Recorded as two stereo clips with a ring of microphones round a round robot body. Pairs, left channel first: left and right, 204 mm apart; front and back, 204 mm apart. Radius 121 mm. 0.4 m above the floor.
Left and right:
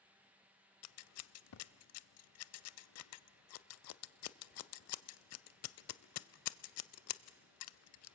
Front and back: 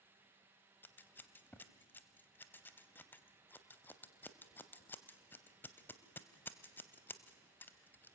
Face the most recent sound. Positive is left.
turn(degrees=80)